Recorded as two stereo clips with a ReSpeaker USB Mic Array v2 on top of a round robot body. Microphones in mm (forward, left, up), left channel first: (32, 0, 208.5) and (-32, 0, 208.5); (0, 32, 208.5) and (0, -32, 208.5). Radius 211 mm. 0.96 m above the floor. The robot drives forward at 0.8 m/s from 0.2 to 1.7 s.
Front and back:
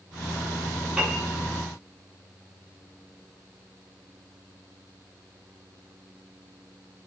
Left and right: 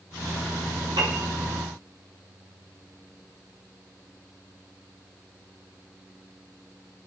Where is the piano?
105° right, 0.9 m; by 1.2 s 120° right, 1.0 m.